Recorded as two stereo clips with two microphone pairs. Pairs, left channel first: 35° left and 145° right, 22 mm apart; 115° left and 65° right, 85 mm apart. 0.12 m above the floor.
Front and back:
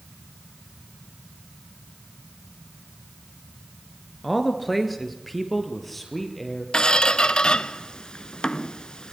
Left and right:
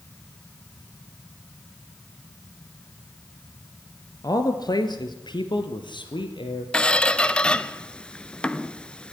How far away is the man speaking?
About 2 m.